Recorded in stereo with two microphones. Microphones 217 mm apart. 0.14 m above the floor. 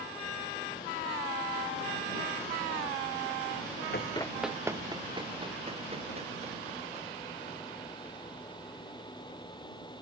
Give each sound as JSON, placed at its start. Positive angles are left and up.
{"t": 3.9, "sound": "running footsteps", "side_deg": 55}